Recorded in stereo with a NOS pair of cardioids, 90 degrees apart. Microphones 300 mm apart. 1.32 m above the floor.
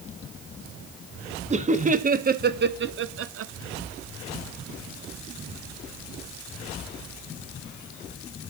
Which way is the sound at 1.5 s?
25° right.